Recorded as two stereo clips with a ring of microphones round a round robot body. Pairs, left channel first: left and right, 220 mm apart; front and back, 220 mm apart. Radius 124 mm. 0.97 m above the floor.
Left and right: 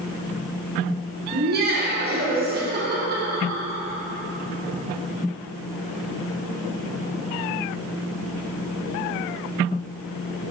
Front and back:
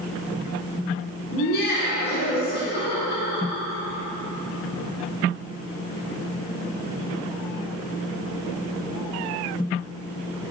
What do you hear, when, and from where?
1.3 s laughter: 45° right, 1.5 m